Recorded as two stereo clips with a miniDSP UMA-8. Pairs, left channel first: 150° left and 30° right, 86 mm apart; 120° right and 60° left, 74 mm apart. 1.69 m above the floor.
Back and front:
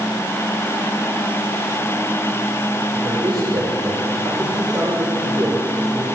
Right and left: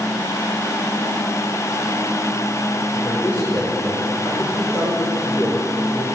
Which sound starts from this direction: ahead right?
A man speaking, at 2.9 s.